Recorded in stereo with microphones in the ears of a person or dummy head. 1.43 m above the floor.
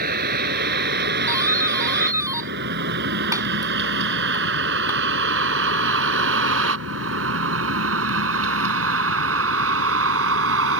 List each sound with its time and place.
0.0 s a vehicle: 55° right (ahead or behind); by 10.8 s 75° right (ahead or behind)
1.3 s a doorbell: 15° right (ahead or behind)